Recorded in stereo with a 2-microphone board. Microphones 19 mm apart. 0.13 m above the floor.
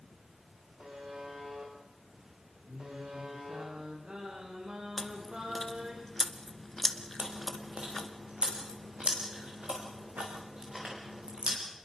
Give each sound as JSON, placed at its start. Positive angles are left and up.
{"t": 0.8, "sound": "a buzzer", "side_deg": -60, "distance_m": 6.5}
{"t": 2.7, "sound": "singing", "side_deg": -65, "distance_m": 7.0}
{"t": 5.0, "sound": "chewing", "side_deg": 15, "distance_m": 1.3}
{"t": 7.2, "sound": "chewing", "side_deg": -70, "distance_m": 5.5}